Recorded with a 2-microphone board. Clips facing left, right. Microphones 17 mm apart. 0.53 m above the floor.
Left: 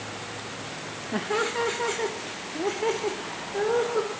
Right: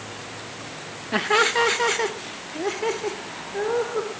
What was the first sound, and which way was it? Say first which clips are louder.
Laughter: right 7 dB; 40° right (ahead or behind).